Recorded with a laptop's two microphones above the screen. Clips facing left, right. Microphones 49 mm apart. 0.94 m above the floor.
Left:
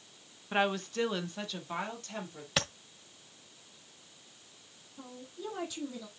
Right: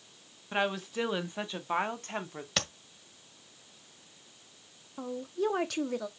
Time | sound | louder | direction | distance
0.5 | a woman speaking | left 1 dB | 5° left (ahead or behind) | 1.3 m
2.6 | tapping | left 2 dB | 5° left (ahead or behind) | 1.6 m
5.0 | a woman speaking | right 12 dB | 60° right (ahead or behind) | 1.5 m